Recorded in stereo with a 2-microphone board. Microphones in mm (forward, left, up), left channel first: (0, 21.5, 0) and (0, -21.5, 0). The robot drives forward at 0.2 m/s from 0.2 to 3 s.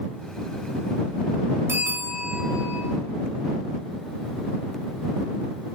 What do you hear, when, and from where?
1.7 s a bell: 65° right (ahead or behind), 1.7 m; by 2.8 s 60° right (ahead or behind), 1.8 m